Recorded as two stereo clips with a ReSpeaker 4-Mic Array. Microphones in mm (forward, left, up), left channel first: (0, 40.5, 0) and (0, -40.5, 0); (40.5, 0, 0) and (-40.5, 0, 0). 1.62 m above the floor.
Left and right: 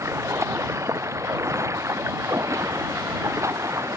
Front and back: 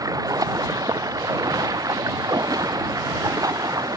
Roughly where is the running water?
Behind right.